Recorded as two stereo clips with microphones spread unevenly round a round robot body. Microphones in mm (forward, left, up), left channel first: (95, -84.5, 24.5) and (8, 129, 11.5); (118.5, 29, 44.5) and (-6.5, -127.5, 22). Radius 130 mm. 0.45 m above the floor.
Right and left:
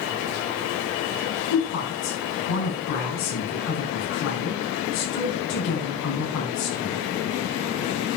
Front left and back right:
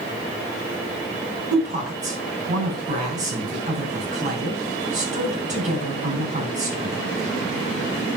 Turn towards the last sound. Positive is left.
turn(degrees=-75)